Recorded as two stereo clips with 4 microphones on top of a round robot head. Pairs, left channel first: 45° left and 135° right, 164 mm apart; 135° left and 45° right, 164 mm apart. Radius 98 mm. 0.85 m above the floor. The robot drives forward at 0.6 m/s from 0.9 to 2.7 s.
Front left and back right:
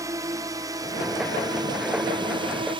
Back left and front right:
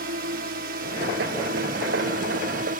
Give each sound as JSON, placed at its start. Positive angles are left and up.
{"t": 0.0, "sound": "a drone", "azimuth_deg": -65}